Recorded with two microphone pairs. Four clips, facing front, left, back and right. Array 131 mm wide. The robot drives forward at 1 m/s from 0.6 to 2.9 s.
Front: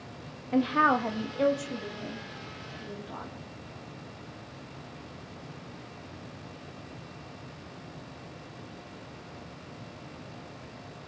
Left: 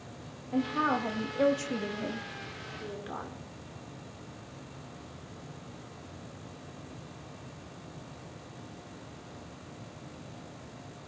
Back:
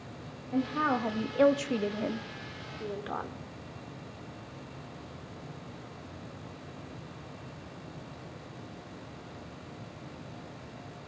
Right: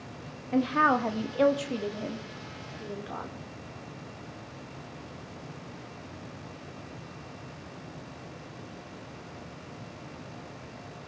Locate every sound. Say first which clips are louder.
0.5 s a woman speaking: right 5 dB, front 5 dB; 25° right, 0.8 m; by 3.4 s 175° right, 1.9 m